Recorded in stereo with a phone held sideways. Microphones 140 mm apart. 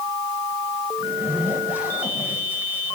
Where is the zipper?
10° right (ahead or behind), 8.5 m.